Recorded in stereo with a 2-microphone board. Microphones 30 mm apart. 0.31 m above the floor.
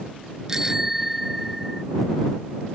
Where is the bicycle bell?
20° right (ahead or behind); by 1.8 s 5° right (ahead or behind).